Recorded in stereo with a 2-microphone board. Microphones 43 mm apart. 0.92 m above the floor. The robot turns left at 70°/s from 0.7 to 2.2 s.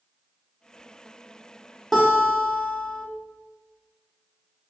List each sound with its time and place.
1.9 s a guitar: 5° left (ahead or behind), 0.8 m; by 3.0 s 15° left (ahead or behind), 0.8 m